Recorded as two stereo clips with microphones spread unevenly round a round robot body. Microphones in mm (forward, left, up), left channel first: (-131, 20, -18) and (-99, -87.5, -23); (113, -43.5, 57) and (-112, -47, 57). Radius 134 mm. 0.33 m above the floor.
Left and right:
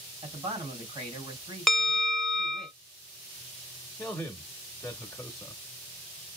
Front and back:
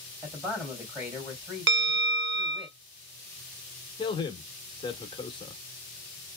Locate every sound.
0.2 s a man speaking: 95° right, 3 m
1.7 s a bell: 165° right, 0.7 m
4.0 s a man speaking: 30° left, 0.9 m